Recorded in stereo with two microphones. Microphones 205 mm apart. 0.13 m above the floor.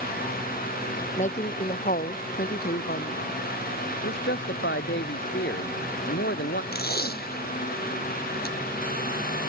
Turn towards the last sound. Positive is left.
turn(degrees=50)  # may be behind; listen again after turning